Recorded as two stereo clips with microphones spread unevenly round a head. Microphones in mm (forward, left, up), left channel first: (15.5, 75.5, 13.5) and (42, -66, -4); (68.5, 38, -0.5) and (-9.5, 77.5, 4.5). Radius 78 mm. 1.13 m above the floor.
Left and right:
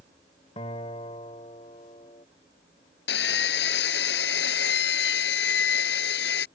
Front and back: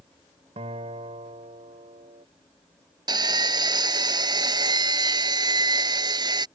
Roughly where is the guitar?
Behind.